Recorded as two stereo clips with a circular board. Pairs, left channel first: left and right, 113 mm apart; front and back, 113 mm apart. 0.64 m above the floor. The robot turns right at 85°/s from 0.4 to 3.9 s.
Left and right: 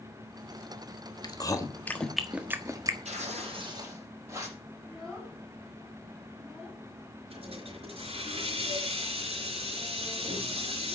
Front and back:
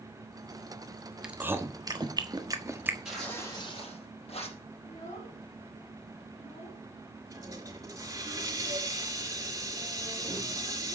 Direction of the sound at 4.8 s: 5° left.